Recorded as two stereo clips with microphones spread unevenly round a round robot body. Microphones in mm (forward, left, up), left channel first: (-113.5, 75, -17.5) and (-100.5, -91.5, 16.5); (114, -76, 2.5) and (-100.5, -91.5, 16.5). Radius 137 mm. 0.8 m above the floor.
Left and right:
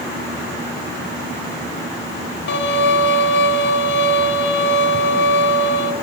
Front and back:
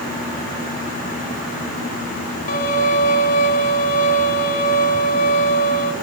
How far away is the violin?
About 1.2 m.